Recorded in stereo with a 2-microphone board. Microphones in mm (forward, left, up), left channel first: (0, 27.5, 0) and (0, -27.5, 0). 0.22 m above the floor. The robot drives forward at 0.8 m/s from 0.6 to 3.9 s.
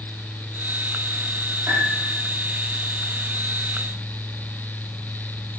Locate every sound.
1.7 s a piano: 30° right (ahead or behind), 7.5 m